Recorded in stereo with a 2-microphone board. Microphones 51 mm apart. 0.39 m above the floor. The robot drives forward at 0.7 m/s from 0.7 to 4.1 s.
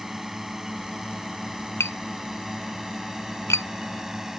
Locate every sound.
0.0 s a drone: 5° right (ahead or behind)
1.8 s tapping: 60° left (ahead or behind); by 3.7 s 65° left (ahead or behind)